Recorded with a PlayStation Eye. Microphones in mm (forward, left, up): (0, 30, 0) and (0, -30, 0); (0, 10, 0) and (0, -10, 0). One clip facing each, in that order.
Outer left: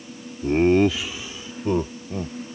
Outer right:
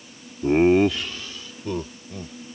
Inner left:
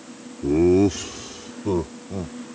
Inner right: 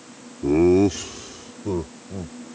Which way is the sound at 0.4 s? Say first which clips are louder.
Outer right 1 dB, inner right 1 dB; 25° right (ahead or behind).